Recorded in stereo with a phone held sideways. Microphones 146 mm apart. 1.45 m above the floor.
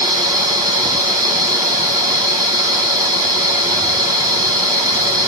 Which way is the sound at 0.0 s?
25° right (ahead or behind).